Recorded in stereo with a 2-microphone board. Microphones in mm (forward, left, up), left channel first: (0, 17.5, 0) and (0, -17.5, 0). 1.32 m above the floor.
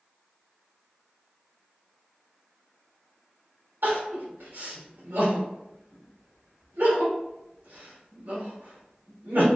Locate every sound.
3.8 s crying: 80° right, 1.7 m